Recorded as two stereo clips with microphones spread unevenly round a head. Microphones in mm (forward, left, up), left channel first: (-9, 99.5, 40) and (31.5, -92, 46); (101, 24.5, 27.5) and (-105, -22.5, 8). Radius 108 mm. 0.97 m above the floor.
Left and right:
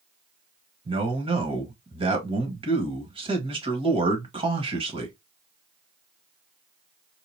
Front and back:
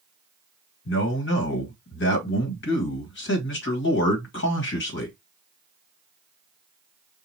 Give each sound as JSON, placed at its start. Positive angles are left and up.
{"t": 0.8, "sound": "a man speaking", "azimuth_deg": -15, "distance_m": 1.6}